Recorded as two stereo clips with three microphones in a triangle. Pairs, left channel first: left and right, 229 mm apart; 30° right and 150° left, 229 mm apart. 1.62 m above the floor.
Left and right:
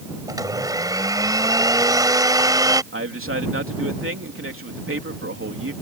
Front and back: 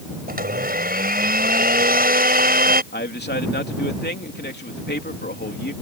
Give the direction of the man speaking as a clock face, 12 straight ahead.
2 o'clock.